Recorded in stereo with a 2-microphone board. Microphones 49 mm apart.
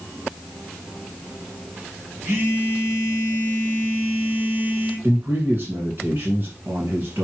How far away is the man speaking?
About 1.9 m.